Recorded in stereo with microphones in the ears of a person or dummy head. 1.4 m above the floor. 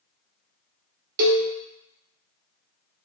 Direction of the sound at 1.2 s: 50° right (ahead or behind).